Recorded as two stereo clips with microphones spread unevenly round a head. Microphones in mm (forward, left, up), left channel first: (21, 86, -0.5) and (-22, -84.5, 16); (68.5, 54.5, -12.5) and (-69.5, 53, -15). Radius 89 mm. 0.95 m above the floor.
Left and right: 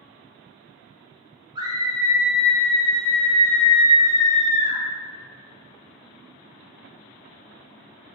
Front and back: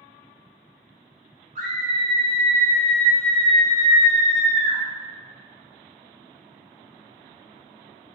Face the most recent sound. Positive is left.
turn(degrees=15)